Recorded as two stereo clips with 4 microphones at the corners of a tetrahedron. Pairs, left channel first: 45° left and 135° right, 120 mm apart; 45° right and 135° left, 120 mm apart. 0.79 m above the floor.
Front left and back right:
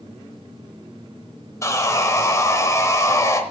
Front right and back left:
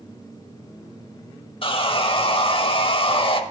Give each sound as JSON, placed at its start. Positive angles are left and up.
{"t": 1.6, "sound": "sawing", "azimuth_deg": -15, "distance_m": 0.8}